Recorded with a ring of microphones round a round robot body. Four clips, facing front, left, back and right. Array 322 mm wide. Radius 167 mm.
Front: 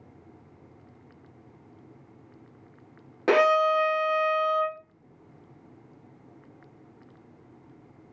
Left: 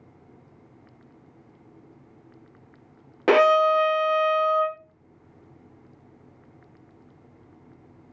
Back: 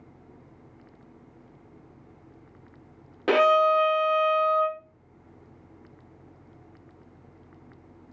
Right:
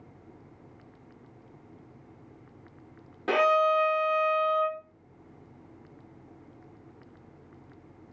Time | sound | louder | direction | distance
3.3 | a violin | left 6 dB, back 1 dB | 80° left | 0.6 m